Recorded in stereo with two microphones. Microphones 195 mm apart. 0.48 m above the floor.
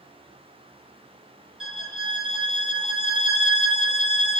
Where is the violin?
Centre (ahead or behind), 2 m.